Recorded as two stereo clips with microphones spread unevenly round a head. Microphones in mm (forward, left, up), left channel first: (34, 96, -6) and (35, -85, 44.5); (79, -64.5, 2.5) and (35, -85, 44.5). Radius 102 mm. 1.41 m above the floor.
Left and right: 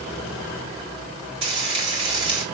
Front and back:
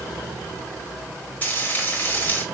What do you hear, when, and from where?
1.4 s frying: 30° right, 3 m